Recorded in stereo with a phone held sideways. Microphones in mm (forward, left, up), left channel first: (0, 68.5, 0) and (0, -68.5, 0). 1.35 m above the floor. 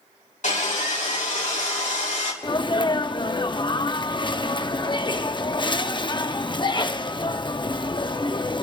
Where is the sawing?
65° left (ahead or behind), 2.5 m.